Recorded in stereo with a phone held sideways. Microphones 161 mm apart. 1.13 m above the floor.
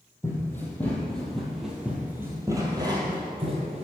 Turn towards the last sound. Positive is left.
turn(degrees=-40)  # may be behind; listen again after turning